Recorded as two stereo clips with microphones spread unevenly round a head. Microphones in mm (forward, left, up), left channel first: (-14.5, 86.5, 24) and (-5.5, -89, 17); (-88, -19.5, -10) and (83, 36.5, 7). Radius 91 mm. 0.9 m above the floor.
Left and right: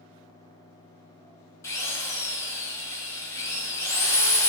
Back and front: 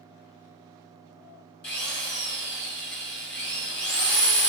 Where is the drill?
170° left, 2.5 m.